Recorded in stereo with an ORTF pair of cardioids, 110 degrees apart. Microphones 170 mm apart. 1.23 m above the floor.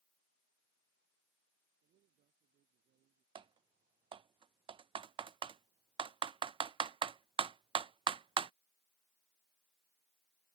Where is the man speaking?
65° right.